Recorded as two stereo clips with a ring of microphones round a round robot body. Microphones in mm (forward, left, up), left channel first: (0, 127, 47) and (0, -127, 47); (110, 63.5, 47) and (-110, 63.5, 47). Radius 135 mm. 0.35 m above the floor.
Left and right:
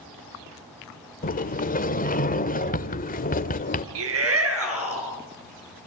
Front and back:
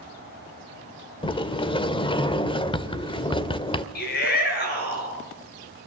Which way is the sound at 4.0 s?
55° right.